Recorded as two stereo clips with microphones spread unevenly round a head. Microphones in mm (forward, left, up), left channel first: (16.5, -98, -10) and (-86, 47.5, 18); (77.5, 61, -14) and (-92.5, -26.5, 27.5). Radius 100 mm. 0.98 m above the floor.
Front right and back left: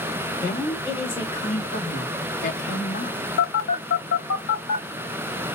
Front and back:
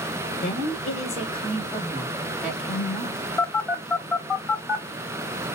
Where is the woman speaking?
10° left, 1.3 m; by 3.2 s 75° right, 1.2 m.